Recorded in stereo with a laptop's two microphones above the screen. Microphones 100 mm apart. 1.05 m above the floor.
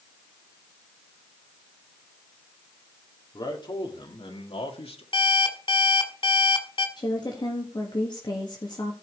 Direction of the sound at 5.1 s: 60° left (ahead or behind).